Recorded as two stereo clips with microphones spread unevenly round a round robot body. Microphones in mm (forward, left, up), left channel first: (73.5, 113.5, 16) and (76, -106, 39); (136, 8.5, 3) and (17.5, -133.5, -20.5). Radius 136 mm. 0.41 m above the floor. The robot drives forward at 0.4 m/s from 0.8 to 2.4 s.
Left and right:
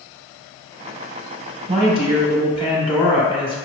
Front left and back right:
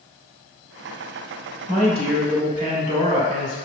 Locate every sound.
1.7 s a woman speaking: 145° right, 1.0 m; by 3.6 s 155° right, 1.2 m